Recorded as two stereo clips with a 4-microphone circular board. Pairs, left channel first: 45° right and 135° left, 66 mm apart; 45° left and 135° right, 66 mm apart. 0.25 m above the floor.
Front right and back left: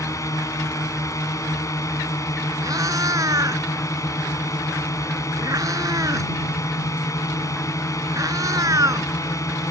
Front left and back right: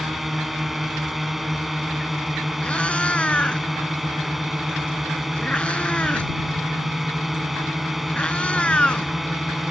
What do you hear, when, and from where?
0.0 s a drone: 50° right
2.6 s a cat meowing: 115° left